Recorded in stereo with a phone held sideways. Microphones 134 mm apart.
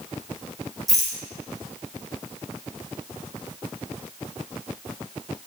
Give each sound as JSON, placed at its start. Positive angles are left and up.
{"t": 0.9, "sound": "a rattle", "side_deg": 0, "distance_m": 1.8}